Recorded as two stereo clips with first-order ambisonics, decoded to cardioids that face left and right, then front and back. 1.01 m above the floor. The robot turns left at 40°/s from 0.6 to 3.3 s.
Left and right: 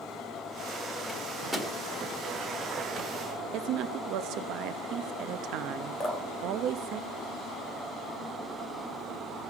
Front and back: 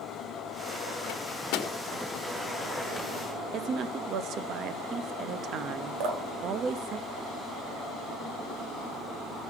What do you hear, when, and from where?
1.1 s a microwave: 10° left, 1.5 m; by 1.7 s 15° right, 1.5 m
3.5 s a woman speaking: 130° right, 0.8 m
6.0 s dripping: 165° left, 1.9 m